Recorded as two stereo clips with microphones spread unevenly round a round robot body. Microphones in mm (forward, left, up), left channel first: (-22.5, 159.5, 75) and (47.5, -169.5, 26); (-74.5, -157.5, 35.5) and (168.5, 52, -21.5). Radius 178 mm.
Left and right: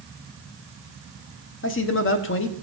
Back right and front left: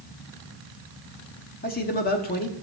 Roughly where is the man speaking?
Behind left.